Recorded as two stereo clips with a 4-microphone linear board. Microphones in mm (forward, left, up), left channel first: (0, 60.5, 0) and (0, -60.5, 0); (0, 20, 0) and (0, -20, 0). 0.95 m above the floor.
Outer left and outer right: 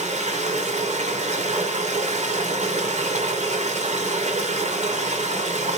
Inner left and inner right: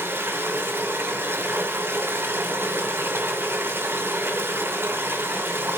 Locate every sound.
0.0 s running water: 80° right, 3 m